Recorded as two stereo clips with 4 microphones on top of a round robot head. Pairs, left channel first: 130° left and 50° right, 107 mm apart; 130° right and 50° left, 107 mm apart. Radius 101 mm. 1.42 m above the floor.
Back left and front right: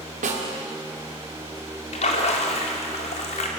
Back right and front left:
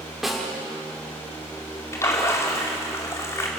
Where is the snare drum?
40° right, 2.5 m.